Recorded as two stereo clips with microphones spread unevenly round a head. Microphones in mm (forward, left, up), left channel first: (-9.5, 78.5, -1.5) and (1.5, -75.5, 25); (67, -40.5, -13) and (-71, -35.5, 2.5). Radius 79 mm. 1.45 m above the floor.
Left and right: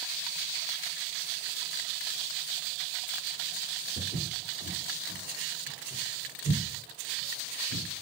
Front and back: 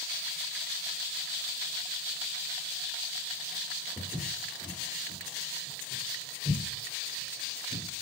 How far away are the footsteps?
About 4 m.